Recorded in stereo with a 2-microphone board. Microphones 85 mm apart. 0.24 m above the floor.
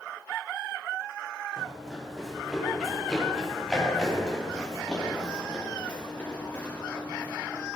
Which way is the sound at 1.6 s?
5° right (ahead or behind).